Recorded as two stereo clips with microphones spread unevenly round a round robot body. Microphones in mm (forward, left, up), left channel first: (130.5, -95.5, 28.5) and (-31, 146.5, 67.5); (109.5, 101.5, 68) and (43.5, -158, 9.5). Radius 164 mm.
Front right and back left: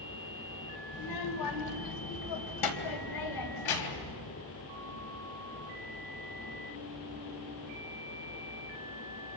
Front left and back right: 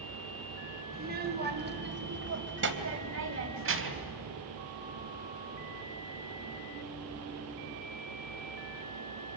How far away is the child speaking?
About 2.5 m.